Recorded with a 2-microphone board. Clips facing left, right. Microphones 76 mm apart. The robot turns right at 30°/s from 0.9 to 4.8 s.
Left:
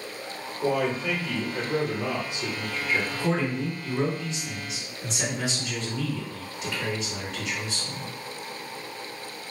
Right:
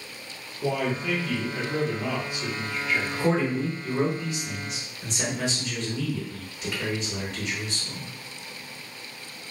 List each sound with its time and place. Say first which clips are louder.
0.6 s a man speaking: left 1 dB; 10° left (ahead or behind), 1.0 m; by 3.0 s 25° left (ahead or behind), 1.0 m
3.1 s a man speaking: right 2 dB; 15° right (ahead or behind), 1.0 m; by 8.1 s centre (ahead or behind), 1.0 m